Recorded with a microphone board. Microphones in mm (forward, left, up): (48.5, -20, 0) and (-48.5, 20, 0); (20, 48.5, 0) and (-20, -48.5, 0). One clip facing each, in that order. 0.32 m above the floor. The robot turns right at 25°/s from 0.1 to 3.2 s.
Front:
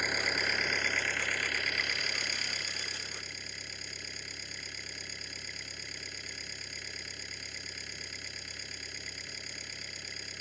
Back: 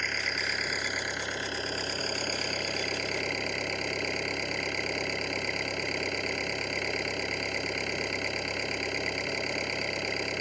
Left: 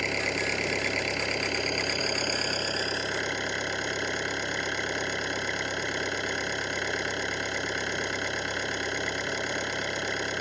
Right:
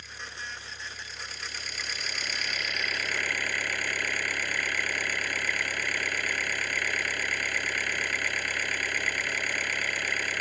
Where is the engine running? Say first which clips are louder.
Even, left 13 dB; 60° left; by 10.4 s 135° left.